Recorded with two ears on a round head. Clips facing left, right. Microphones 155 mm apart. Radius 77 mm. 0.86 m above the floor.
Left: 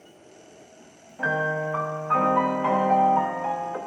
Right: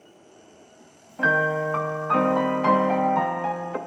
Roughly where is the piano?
Right.